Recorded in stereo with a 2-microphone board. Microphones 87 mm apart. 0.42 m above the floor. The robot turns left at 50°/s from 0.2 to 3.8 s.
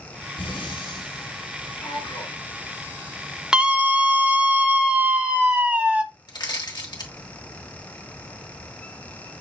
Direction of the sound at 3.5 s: 10° right (ahead or behind).